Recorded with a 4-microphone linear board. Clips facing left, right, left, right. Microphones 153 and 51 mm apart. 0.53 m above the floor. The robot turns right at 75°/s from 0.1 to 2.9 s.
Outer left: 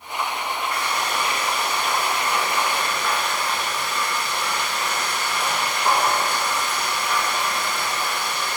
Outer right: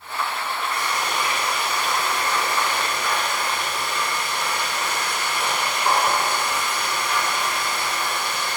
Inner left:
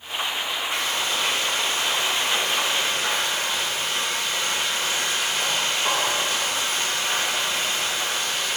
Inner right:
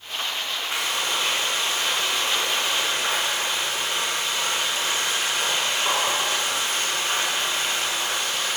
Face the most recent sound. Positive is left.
turn(degrees=140)